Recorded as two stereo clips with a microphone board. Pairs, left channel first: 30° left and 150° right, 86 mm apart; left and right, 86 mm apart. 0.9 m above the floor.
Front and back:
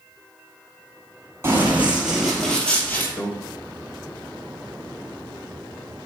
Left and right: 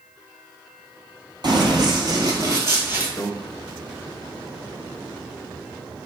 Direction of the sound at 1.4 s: 95° right.